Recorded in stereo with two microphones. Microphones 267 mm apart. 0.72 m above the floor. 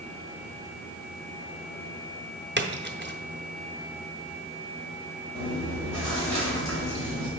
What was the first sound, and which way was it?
A splash, 40° right (ahead or behind).